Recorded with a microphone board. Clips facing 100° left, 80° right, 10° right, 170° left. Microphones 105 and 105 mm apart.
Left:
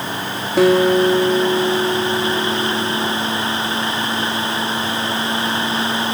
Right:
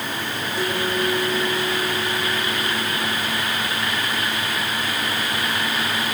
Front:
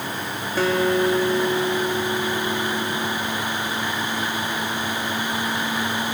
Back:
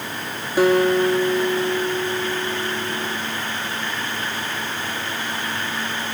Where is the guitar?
90° left, 3 m.